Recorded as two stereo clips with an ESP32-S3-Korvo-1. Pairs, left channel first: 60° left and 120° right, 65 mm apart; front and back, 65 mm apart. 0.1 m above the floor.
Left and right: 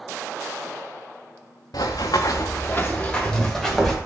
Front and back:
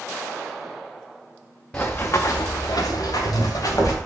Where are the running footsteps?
70° left, 0.7 m; by 4.0 s 30° right, 1.5 m.